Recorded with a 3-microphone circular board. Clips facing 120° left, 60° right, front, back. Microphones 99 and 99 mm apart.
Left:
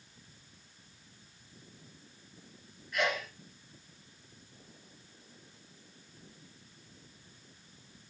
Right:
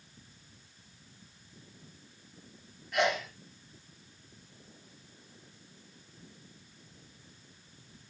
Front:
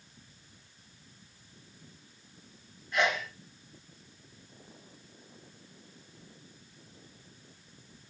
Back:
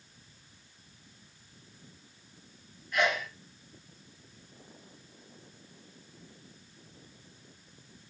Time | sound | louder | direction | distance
2.9 | a sneeze | right 3 dB, even | 65° right | 5 m